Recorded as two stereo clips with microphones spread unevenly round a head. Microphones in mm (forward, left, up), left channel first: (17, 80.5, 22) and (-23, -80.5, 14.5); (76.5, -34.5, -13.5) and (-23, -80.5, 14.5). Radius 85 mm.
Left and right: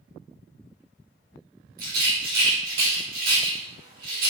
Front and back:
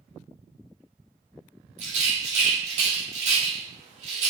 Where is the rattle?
135° right, 3.5 m.